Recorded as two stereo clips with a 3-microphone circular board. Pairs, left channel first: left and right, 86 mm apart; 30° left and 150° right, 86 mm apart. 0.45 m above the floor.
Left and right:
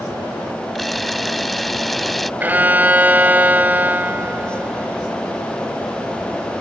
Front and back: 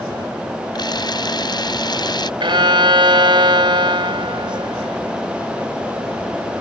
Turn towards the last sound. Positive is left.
turn(degrees=-160)